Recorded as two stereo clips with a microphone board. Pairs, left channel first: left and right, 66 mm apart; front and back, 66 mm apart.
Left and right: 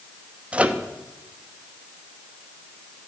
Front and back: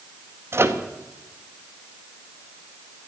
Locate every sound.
0.5 s a microwave: 150° right, 0.8 m